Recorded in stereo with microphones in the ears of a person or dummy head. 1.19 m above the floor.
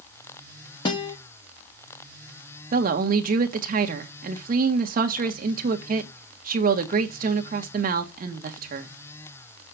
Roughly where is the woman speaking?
Right.